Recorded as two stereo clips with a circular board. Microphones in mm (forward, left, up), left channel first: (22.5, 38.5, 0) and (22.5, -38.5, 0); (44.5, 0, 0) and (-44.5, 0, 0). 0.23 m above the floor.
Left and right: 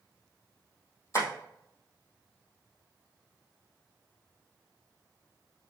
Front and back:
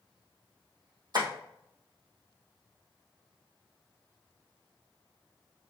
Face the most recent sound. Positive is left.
turn(degrees=135)